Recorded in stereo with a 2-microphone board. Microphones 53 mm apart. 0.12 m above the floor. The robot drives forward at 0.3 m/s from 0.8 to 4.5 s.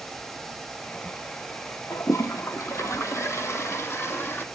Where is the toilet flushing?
75° left (ahead or behind), 0.9 m; by 4.5 s 50° left (ahead or behind), 1.2 m.